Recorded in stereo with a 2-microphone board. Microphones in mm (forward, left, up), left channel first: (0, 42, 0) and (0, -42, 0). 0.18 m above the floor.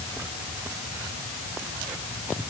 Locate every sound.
Only background noise.